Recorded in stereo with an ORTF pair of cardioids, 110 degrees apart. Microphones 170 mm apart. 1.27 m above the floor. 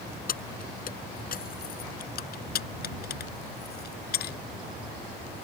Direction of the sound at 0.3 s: 50° left.